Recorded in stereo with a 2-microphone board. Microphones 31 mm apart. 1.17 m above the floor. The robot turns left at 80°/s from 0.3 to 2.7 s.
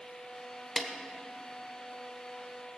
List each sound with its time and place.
0.8 s a snare drum: 15° left (ahead or behind), 1.4 m; by 0.9 s 25° left (ahead or behind), 1.4 m